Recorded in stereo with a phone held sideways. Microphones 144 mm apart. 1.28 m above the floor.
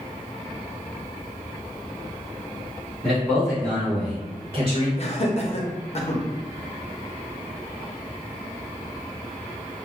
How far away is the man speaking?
About 1.9 m.